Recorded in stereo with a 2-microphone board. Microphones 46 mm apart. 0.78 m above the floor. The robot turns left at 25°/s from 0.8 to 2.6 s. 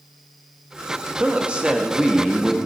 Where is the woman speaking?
140° right, 1.2 m; by 2.6 s 175° right, 1.2 m.